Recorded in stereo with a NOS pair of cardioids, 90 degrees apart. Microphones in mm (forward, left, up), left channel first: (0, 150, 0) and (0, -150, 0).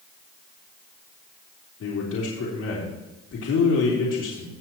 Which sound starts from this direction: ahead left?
A man speaking, at 1.8 s.